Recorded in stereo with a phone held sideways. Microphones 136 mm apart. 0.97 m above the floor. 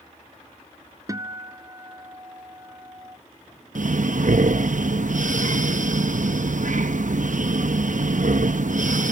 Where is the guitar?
25° right (ahead or behind).